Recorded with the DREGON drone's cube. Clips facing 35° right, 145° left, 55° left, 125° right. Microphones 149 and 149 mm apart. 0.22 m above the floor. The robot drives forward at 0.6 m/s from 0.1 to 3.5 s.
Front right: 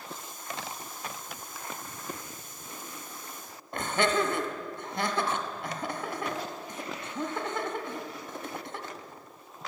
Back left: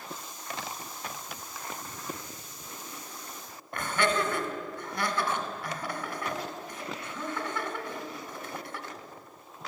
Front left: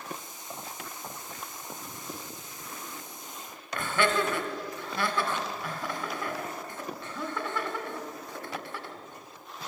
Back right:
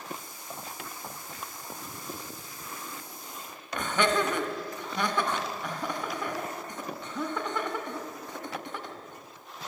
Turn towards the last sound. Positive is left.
turn(degrees=-75)